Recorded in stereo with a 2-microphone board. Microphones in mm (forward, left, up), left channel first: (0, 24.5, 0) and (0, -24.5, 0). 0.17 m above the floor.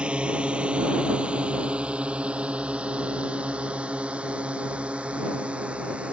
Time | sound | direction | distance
0.0 | a drone | 25° right (ahead or behind) | ?